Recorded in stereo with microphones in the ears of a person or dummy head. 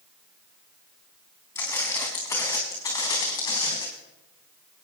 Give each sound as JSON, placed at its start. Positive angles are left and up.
{"t": 1.6, "sound": "footsteps", "side_deg": 15, "distance_m": 4.5}